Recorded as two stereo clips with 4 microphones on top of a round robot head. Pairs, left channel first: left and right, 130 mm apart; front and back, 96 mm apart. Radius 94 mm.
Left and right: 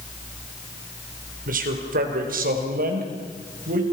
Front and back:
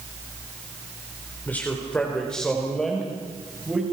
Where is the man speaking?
80° right, 3.5 m; by 3.8 s 95° right, 5.5 m.